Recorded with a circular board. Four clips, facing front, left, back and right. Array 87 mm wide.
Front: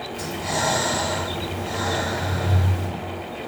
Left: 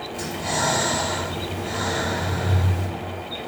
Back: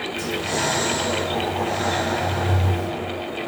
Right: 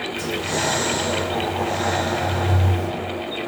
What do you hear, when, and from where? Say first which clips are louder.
0.1 s breathing: even, even; 85° left, 3 m